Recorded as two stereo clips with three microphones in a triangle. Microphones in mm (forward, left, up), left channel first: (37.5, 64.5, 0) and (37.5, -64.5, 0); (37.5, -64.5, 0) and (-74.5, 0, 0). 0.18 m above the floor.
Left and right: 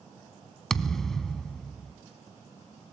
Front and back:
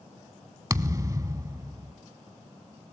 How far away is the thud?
About 0.6 m.